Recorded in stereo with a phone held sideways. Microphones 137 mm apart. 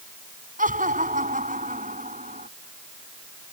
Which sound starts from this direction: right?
Laughter, at 0.6 s.